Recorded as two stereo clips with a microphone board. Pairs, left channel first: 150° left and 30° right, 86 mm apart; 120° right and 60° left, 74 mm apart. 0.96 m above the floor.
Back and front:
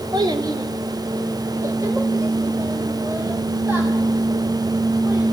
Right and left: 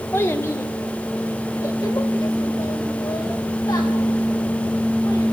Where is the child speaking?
65° right, 2 m; by 5.2 s 95° right, 7.5 m.